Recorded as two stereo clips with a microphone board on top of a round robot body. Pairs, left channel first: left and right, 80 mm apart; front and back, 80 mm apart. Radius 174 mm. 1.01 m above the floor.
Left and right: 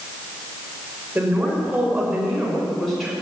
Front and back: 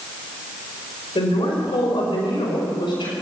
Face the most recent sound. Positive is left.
turn(degrees=5)